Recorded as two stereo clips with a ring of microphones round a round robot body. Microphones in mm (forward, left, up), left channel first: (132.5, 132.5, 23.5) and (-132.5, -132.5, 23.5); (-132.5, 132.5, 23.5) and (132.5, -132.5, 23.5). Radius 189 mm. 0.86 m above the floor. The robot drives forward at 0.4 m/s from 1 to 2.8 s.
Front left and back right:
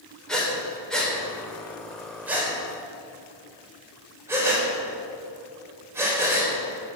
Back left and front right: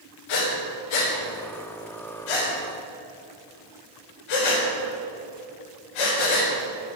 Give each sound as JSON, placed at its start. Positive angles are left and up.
{"t": 0.3, "sound": "breathing", "azimuth_deg": 135, "distance_m": 3.0}